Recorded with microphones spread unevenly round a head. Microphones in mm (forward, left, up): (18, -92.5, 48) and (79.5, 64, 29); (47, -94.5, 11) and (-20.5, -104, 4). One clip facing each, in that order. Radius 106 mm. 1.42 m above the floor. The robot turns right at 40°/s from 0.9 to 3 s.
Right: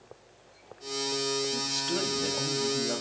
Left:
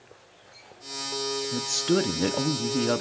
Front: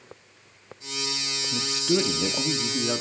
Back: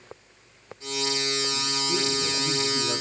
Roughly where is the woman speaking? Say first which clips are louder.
Left 8 dB, front 3 dB; ahead left.